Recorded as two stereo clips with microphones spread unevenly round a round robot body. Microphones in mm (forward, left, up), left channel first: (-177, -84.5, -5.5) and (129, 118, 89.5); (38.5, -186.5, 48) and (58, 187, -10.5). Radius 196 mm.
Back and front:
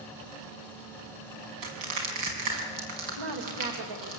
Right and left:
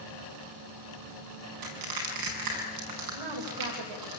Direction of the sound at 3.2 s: 70° left.